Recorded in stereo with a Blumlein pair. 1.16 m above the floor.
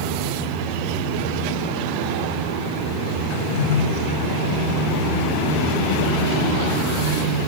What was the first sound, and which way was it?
A drawer, 50° left.